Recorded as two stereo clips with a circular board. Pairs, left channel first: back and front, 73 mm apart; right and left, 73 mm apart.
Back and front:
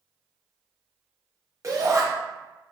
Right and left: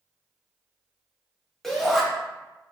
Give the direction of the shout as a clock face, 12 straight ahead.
12 o'clock.